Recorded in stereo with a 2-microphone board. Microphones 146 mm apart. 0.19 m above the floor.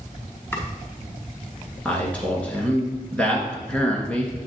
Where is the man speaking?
10° left (ahead or behind), 1.9 m.